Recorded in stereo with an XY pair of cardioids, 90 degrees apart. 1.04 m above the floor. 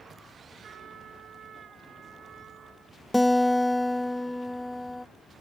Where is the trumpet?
60° right.